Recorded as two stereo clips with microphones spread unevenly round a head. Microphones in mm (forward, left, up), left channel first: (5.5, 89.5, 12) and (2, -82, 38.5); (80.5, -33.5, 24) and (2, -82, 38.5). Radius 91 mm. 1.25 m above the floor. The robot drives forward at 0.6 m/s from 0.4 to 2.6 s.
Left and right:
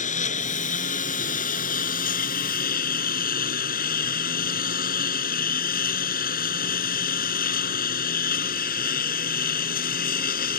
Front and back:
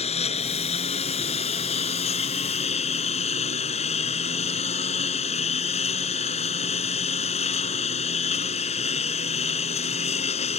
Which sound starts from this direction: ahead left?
A lawn mower, at 0.0 s.